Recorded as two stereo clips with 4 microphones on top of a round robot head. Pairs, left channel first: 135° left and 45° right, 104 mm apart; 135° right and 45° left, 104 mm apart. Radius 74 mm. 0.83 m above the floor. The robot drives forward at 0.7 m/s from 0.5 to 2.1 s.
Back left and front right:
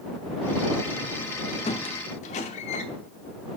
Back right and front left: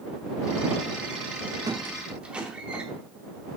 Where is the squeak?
105° left, 0.7 m; by 2.8 s 125° left, 0.8 m.